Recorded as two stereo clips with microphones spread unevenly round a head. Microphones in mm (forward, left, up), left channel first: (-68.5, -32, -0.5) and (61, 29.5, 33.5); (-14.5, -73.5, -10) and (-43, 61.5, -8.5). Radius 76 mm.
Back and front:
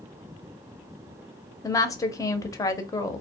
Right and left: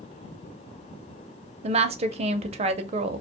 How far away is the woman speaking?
About 0.5 m.